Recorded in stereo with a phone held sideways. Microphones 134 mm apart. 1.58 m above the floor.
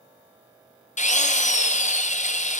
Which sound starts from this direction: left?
A drill, at 1.0 s.